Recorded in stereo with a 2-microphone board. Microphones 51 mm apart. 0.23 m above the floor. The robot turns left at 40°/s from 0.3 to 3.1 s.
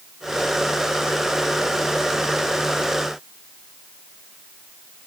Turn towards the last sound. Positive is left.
No sound to turn to.